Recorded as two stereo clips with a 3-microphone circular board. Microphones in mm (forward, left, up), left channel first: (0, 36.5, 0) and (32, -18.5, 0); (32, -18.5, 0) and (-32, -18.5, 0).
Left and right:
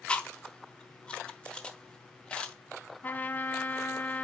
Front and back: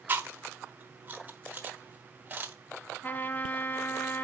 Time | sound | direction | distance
0.1 | chewing | 175° left | 1.2 m
3.0 | a trumpet | 60° left | 0.7 m